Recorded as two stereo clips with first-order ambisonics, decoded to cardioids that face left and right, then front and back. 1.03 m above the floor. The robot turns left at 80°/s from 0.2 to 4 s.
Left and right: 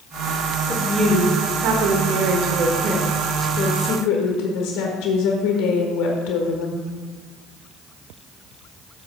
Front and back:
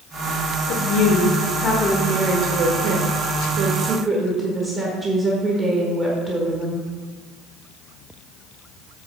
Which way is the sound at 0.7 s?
20° left.